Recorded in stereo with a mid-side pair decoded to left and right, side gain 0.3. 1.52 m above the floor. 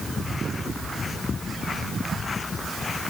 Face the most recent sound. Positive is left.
No sound to turn to.